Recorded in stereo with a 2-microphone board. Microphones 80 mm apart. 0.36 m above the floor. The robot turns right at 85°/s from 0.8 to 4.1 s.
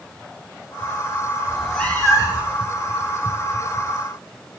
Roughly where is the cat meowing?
Ahead.